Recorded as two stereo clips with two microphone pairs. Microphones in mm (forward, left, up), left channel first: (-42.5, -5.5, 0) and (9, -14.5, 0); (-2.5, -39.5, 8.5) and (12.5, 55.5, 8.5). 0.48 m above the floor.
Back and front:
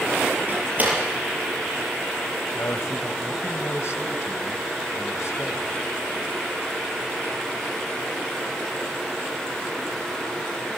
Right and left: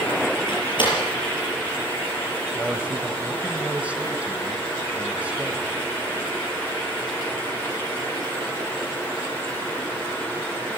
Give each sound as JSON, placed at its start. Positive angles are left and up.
{"t": 0.5, "sound": "a door slam", "azimuth_deg": -70, "distance_m": 6.5}
{"t": 2.5, "sound": "a man speaking", "azimuth_deg": 155, "distance_m": 1.9}